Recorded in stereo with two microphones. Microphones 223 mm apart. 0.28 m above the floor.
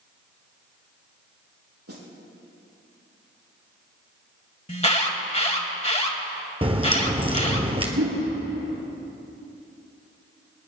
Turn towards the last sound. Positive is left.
turn(degrees=-70)  # may be behind; listen again after turning